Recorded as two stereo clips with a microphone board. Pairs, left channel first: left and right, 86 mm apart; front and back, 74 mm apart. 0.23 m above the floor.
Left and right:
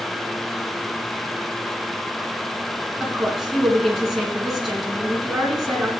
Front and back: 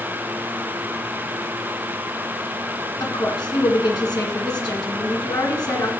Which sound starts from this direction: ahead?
A woman speaking, at 3.0 s.